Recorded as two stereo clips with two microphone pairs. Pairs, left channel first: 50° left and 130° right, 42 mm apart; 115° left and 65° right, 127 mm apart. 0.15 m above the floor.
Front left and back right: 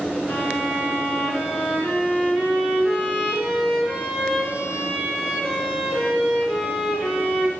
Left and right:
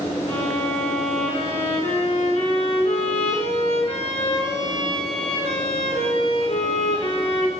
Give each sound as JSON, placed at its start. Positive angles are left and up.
{"t": 0.3, "sound": "a violin", "azimuth_deg": 155, "distance_m": 4.0}